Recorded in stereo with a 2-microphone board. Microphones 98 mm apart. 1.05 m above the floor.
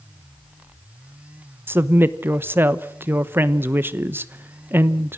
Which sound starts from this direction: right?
A woman speaking, at 1.7 s.